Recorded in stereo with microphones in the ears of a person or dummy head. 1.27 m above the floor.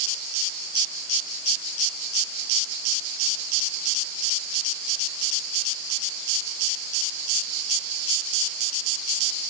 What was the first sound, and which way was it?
Only background noise.